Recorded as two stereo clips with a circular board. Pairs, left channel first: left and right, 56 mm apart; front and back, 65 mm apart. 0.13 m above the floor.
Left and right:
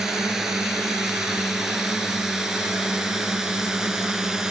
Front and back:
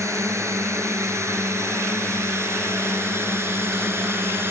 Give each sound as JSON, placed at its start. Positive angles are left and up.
{"t": 0.0, "sound": "a drone", "azimuth_deg": -170}